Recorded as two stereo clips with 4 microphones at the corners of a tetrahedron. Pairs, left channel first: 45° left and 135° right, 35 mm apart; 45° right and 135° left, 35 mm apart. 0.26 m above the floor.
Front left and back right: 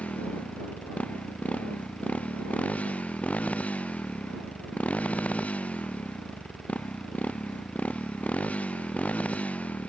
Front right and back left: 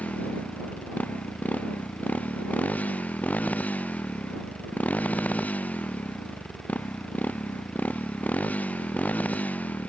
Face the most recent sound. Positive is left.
turn(degrees=-5)